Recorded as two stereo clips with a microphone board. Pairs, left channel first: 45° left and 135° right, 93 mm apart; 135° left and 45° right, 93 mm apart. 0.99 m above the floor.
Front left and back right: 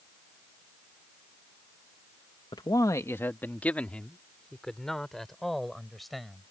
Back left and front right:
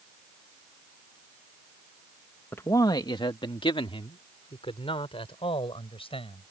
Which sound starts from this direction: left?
A man speaking, at 2.5 s.